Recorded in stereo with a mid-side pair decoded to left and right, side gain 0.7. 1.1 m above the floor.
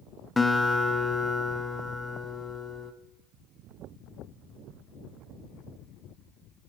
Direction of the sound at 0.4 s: 15° left.